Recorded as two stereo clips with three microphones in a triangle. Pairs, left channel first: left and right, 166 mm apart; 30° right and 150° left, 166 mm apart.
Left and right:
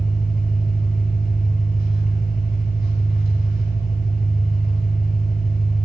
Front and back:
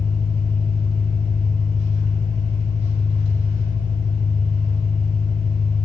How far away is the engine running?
About 6 m.